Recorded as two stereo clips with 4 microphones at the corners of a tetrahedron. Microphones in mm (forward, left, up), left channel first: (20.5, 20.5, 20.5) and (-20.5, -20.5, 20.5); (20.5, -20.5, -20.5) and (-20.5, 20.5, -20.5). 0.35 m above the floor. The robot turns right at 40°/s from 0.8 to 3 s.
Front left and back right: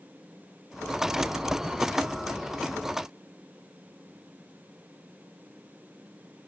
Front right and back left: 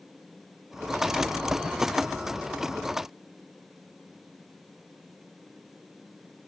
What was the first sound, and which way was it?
Only background noise.